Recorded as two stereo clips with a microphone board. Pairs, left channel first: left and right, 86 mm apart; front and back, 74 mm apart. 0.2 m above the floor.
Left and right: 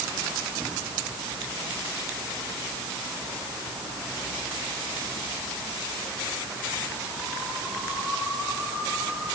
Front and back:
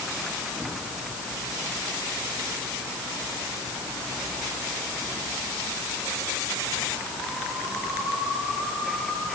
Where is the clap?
I don't hear a clap.